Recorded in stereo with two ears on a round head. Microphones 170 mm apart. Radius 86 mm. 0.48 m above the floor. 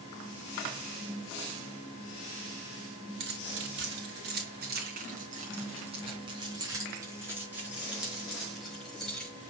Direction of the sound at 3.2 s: 75° right (ahead or behind).